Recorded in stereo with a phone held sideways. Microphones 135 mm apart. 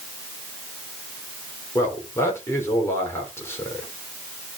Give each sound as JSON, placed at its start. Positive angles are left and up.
{"t": 1.8, "sound": "a man speaking", "side_deg": 20, "distance_m": 3.0}